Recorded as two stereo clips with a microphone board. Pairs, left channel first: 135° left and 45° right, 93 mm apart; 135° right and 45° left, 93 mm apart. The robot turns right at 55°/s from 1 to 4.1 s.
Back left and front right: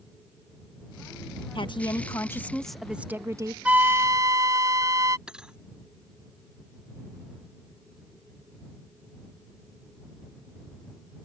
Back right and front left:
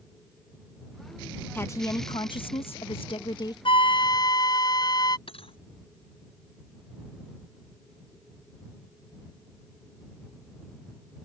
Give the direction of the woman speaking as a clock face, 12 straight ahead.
7 o'clock.